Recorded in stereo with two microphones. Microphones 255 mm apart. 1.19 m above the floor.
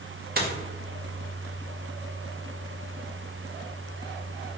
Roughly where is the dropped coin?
Right.